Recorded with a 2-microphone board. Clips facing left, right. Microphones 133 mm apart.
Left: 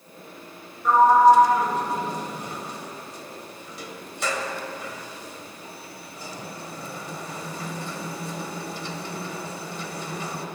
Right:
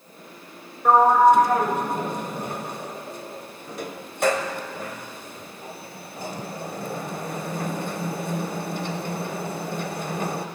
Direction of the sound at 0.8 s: 50° right (ahead or behind).